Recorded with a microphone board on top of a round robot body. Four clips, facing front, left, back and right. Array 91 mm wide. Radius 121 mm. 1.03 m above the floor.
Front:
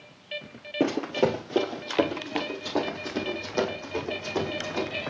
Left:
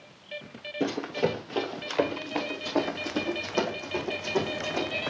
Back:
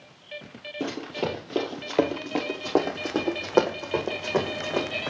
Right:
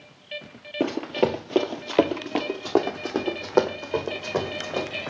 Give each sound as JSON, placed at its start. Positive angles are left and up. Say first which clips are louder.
{"t": 0.8, "sound": "running footsteps", "louder": "right 4 dB, front 6 dB", "azimuth_deg": -45, "distance_m": 1.3}